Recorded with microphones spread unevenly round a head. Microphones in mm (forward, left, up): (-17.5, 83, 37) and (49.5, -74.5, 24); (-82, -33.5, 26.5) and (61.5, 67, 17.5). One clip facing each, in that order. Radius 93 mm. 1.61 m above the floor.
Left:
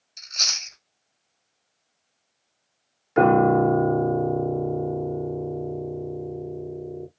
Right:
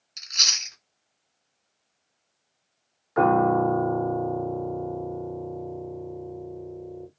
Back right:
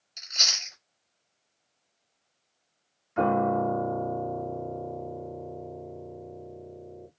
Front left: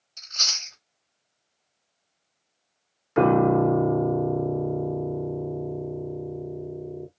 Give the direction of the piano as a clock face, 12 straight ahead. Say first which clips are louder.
Left 3 dB, front left 6 dB; 10 o'clock.